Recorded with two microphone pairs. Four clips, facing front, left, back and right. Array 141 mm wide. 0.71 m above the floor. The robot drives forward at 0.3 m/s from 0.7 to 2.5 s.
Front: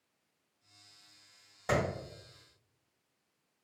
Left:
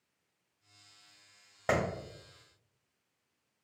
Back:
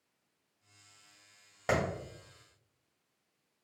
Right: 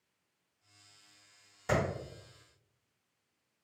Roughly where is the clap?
Behind left.